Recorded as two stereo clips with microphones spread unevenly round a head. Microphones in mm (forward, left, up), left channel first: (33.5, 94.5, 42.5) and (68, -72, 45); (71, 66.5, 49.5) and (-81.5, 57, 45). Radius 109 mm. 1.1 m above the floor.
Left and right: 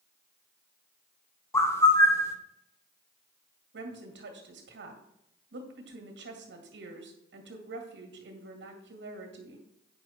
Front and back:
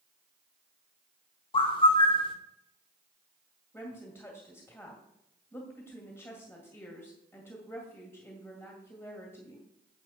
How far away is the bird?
About 0.8 m.